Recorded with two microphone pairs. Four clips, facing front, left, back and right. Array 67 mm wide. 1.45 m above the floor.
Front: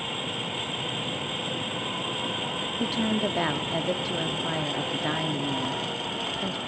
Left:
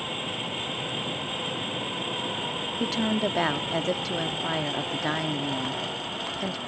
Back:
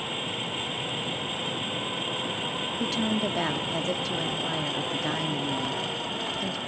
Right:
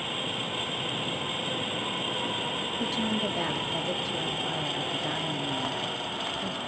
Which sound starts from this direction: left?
A woman speaking, at 2.8 s.